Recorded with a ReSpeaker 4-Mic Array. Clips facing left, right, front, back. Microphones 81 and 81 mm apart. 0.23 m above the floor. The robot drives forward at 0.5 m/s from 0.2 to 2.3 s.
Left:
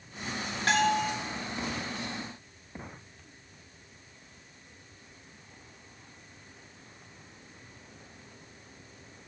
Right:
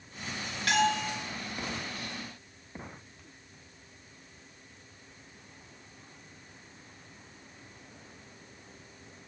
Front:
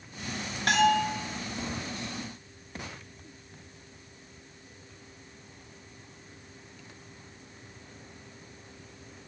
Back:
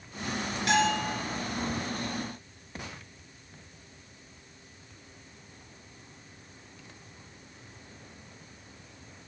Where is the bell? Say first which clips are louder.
Left 1 dB, front 3 dB; 35° left, 3 m.